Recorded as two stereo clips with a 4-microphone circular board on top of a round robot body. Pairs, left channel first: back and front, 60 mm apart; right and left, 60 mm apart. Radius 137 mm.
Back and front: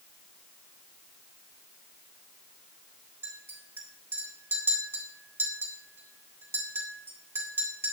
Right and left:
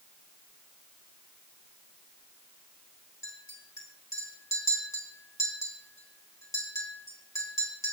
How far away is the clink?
About 3.5 m.